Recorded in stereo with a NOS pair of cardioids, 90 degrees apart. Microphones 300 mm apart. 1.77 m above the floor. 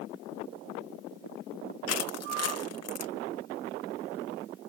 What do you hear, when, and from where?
1.9 s crushing: 55° left